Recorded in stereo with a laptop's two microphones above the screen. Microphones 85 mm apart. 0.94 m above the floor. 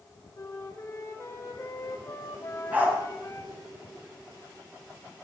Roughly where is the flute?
Left.